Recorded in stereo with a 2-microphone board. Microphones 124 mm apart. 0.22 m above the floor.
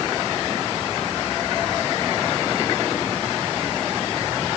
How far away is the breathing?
I don't hear breathing.